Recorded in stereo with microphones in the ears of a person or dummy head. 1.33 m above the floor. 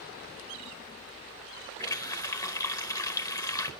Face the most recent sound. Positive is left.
turn(degrees=15)  # may be behind; listen again after turning